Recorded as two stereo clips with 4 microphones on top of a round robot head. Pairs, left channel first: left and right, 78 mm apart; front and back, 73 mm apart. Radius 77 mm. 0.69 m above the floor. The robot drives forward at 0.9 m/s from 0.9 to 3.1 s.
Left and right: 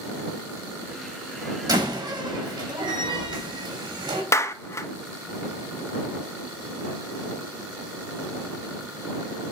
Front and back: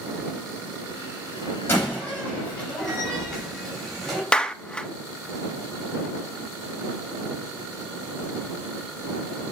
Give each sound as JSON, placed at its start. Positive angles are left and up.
{"t": 1.7, "sound": "a door slam", "azimuth_deg": -60, "distance_m": 3.5}
{"t": 4.3, "sound": "a clap", "azimuth_deg": 75, "distance_m": 0.7}